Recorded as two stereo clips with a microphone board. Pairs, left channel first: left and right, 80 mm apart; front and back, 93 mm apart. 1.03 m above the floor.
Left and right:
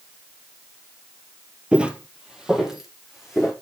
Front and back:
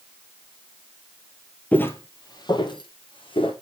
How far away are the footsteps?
About 1.0 m.